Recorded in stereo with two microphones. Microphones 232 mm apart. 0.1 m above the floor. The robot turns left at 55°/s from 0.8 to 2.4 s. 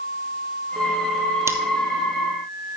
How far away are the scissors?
About 1.2 m.